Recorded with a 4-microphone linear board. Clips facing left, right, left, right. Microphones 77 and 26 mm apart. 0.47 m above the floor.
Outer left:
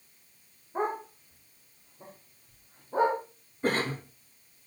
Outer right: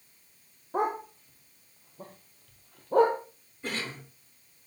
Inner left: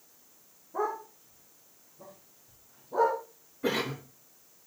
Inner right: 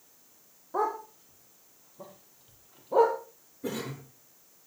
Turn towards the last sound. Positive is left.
turn(degrees=45)  # may be behind; listen again after turning